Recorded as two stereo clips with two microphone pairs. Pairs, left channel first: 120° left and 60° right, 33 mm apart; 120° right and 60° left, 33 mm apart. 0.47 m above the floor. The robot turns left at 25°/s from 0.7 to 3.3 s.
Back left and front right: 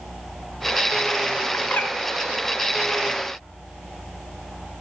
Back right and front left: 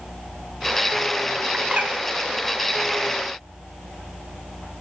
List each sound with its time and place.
1.5 s a bird: 110° left, 0.6 m; by 1.9 s 100° left, 0.6 m